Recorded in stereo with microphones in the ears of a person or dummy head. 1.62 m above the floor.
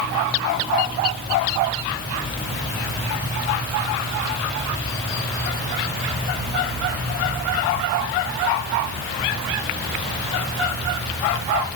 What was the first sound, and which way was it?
Only background noise.